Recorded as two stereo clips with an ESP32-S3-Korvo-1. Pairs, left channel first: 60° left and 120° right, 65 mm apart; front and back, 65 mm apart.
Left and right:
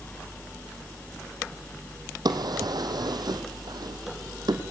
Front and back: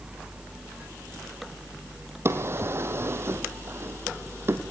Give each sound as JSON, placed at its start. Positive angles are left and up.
{"t": 2.2, "sound": "a drawer", "azimuth_deg": -125, "distance_m": 2.5}